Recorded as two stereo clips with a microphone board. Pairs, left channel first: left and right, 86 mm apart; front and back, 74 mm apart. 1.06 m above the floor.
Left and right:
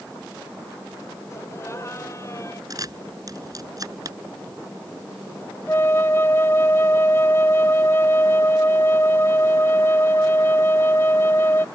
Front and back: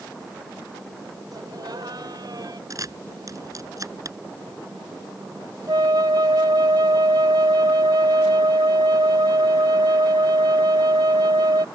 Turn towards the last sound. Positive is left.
turn(degrees=150)